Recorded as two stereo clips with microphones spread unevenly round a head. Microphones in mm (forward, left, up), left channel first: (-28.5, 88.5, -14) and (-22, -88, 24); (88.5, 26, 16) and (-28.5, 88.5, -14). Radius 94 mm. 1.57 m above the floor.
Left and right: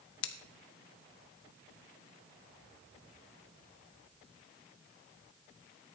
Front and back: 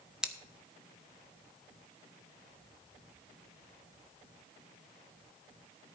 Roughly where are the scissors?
Ahead left.